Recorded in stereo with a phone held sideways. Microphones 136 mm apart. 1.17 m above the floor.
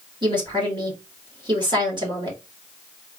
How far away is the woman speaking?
About 2.5 m.